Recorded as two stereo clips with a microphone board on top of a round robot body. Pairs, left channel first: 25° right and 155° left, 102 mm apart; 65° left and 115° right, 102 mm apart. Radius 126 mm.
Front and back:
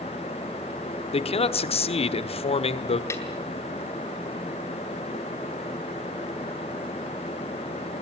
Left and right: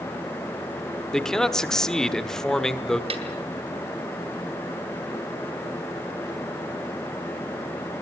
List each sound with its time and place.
1.1 s a man speaking: 20° right, 1.6 m
3.1 s a snare drum: 85° right, 4 m